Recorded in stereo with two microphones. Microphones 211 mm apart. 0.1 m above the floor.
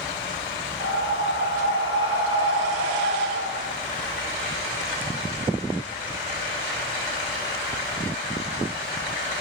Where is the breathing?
25° right (ahead or behind), 1.4 m.